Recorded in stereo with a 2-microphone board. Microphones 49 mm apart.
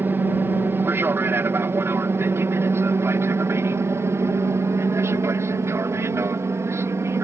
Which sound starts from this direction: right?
An aircraft, at 0.0 s.